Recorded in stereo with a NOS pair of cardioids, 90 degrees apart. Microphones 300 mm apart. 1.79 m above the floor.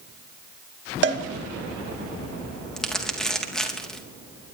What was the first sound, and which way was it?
A cowbell, 40° right.